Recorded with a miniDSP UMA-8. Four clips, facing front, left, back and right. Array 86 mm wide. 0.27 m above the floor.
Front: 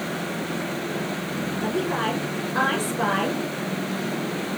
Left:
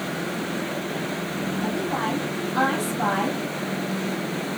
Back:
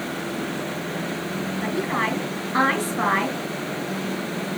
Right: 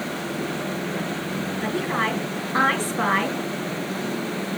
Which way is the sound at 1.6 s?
145° right.